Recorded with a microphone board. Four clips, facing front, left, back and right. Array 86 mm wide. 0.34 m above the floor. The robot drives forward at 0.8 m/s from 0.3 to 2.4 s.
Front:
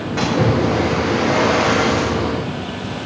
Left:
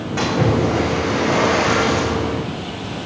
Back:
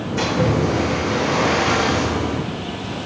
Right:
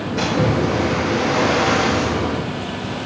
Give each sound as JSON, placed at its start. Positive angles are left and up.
{"t": 0.2, "sound": "a splash", "azimuth_deg": 40, "distance_m": 7.0}